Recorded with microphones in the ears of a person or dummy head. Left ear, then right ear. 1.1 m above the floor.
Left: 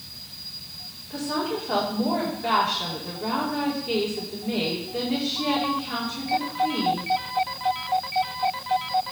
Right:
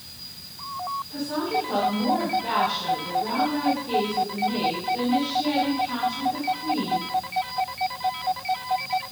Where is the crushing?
No crushing in this recording.